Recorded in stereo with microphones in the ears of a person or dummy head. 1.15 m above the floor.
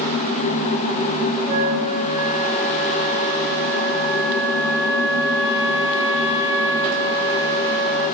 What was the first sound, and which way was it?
A flute, 60° right (ahead or behind).